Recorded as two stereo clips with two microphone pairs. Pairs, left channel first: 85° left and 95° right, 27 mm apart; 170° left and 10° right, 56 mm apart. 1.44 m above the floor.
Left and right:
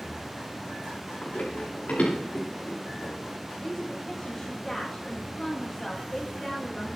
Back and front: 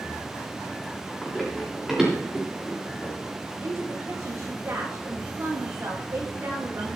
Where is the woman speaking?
25° left, 8 m.